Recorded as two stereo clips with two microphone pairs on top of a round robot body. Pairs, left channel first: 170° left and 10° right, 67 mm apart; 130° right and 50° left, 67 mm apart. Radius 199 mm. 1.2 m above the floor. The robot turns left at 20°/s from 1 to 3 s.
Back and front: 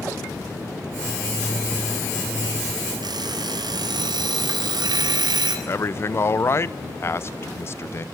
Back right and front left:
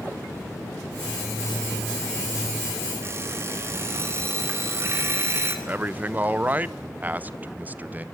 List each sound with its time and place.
3.0 s an alarm clock: straight ahead, 2.0 m
5.7 s a man speaking: 115° left, 0.8 m